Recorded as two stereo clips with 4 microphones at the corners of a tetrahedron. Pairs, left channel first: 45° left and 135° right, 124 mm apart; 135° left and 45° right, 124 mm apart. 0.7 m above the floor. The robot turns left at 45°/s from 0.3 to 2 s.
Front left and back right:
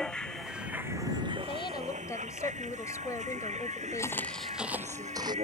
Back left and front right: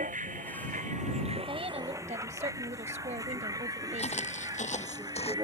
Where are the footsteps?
110° left; by 5.3 s 170° left.